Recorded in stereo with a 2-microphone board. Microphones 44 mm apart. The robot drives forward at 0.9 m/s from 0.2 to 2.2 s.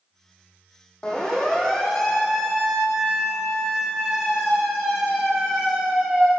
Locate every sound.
1.0 s a siren: 20° left (ahead or behind), 6 m; by 6.3 s 15° right (ahead or behind), 10.5 m